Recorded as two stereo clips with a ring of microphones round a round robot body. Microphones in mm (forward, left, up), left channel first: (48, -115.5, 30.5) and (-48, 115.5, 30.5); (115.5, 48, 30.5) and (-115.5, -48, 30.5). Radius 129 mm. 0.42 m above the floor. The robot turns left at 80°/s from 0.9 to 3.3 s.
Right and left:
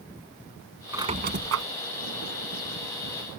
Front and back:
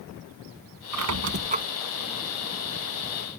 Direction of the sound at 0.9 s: 170° right.